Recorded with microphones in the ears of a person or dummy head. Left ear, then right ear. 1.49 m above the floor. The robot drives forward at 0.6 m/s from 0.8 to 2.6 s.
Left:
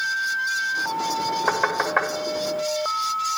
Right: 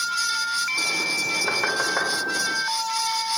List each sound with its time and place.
1.5 s knocking: 25° left (ahead or behind), 1.6 m; by 2.1 s 20° left (ahead or behind), 1.9 m